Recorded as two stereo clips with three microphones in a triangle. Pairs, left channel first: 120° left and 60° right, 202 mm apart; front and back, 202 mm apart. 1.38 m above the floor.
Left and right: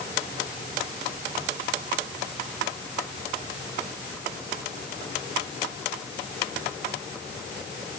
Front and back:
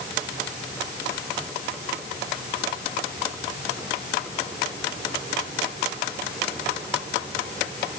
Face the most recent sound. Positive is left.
No sound to turn to.